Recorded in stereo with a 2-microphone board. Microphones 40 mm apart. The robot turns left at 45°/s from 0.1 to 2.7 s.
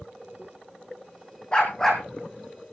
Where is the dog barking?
25° left (ahead or behind), 3.5 m; by 2.0 s 5° left (ahead or behind), 3.5 m.